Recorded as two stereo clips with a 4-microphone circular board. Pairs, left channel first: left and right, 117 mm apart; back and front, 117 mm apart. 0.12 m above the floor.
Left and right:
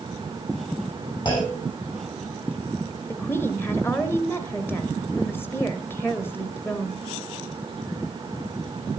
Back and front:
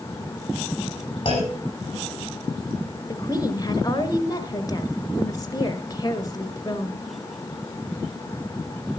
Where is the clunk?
140° left, 7.5 m.